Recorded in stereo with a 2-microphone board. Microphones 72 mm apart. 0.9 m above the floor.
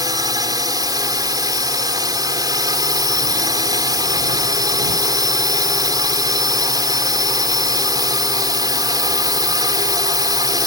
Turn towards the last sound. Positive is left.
turn(degrees=-65)  # may be behind; listen again after turning